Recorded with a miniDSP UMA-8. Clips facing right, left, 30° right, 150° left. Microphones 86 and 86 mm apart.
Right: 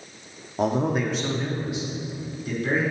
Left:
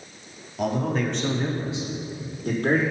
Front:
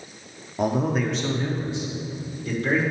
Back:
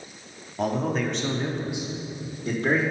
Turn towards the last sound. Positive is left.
turn(degrees=95)